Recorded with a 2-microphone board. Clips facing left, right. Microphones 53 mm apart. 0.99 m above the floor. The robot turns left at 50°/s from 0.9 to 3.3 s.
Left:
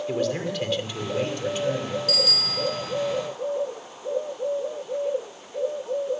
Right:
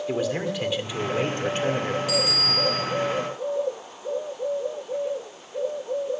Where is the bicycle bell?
15° right, 3 m; by 2.8 s 55° right, 3 m.